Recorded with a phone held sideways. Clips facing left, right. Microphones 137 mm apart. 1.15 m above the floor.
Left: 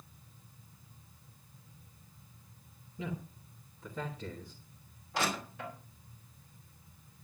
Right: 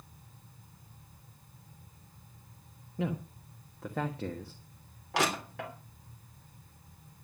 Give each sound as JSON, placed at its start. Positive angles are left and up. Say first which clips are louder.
{"t": 0.0, "sound": "a fan", "louder": "right 2 dB", "side_deg": -70, "distance_m": 4.5}
{"t": 3.0, "sound": "a man speaking", "louder": "right 6 dB", "side_deg": -70, "distance_m": 1.4}
{"t": 5.1, "sound": "crushing", "louder": "right 4 dB", "side_deg": -85, "distance_m": 3.0}